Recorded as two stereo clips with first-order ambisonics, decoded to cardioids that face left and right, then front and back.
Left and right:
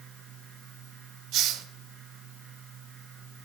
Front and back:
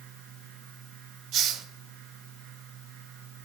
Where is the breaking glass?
No breaking glass in this recording.